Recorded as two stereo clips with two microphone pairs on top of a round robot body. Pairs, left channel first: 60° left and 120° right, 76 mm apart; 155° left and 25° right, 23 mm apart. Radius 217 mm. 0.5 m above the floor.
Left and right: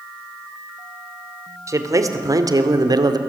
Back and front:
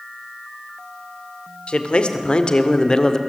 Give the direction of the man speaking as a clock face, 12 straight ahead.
6 o'clock.